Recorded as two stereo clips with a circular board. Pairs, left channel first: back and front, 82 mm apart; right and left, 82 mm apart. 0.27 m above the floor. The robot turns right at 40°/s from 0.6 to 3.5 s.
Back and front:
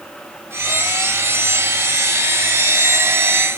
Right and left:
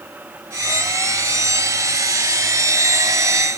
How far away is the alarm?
I don't hear an alarm.